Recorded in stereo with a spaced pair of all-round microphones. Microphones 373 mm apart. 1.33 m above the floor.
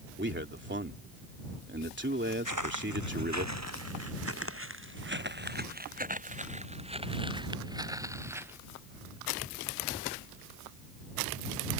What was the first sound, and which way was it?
A man speaking, 30° right (ahead or behind).